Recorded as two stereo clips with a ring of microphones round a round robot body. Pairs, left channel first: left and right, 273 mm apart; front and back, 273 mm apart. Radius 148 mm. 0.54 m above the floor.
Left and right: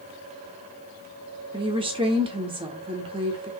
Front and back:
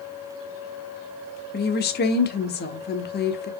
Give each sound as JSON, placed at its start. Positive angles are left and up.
{"t": 1.5, "sound": "a woman speaking", "azimuth_deg": -30, "distance_m": 1.0}